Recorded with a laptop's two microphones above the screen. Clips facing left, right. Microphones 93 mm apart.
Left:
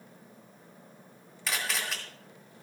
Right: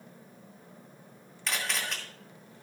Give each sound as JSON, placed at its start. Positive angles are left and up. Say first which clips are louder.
{"t": 1.5, "sound": "a camera shutter", "louder": "even", "side_deg": 0, "distance_m": 2.5}